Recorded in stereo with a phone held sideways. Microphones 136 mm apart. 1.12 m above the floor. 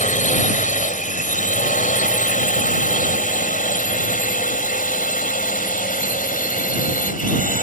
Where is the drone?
70° left (ahead or behind); by 7.6 s 80° left.